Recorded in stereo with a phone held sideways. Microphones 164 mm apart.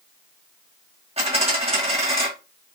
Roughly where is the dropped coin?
Right.